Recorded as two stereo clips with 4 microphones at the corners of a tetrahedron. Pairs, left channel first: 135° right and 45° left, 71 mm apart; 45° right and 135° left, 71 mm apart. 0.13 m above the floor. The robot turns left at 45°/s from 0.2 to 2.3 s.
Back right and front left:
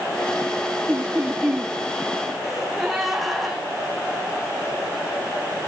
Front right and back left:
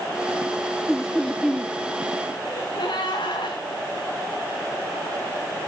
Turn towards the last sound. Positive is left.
turn(degrees=-45)